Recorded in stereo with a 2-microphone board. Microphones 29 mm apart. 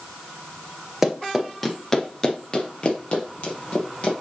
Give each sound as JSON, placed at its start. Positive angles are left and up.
{"t": 1.0, "sound": "running footsteps", "side_deg": -10, "distance_m": 1.9}